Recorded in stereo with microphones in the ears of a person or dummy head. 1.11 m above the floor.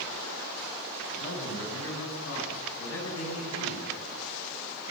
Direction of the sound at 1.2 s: 70° left (ahead or behind).